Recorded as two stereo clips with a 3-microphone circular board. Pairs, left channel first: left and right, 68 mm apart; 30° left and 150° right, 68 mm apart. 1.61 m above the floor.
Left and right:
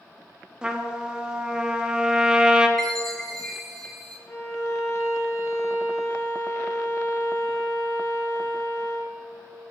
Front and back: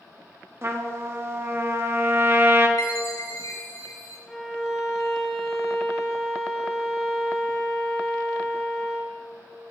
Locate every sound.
0.6 s a trumpet: 155° right, 1.2 m
2.8 s a chime: 10° left, 4 m
4.3 s a violin: 105° left, 2 m